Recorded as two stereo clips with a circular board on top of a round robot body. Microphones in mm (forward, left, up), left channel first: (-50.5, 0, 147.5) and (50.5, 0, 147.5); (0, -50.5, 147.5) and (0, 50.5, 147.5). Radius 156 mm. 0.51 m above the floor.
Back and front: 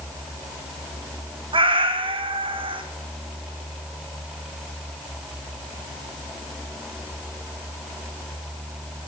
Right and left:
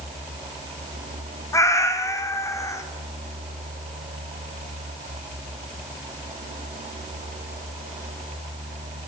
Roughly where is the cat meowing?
Ahead right.